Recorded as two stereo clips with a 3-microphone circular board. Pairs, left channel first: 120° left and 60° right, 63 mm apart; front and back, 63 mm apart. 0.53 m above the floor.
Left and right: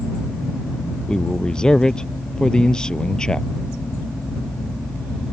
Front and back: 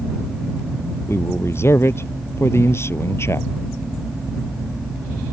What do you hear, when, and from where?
1.1 s a man speaking: 40° left